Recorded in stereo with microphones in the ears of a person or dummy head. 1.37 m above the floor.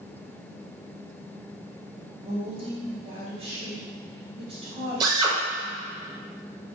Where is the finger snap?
No finger snap in this recording.